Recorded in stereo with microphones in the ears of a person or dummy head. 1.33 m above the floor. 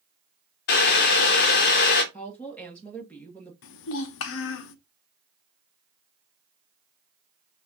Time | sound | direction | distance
0.7 | boiling | 55° left (ahead or behind) | 0.8 m
2.1 | a woman speaking | 5° left (ahead or behind) | 1.3 m
3.6 | a child speaking | 70° left (ahead or behind) | 0.6 m